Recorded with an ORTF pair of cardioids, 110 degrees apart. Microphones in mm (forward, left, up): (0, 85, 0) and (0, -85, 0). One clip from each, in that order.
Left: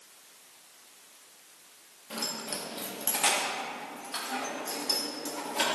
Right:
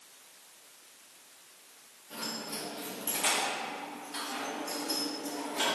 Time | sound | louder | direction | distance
2.1 | keys jangling | left 3 dB | 65° left | 1.7 m